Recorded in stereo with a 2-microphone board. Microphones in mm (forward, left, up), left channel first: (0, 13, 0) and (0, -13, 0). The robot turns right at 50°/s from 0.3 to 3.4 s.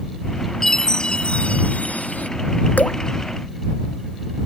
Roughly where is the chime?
Ahead.